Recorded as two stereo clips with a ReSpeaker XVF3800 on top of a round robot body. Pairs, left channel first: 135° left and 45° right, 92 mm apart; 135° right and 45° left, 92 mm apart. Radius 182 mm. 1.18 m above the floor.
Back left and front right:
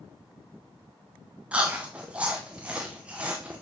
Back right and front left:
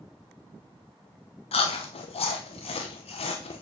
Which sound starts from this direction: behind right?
Chewing, at 1.5 s.